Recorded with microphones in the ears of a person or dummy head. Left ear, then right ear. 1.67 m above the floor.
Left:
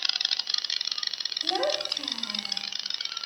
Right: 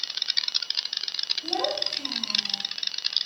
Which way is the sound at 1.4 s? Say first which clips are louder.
Even; 70° left (ahead or behind).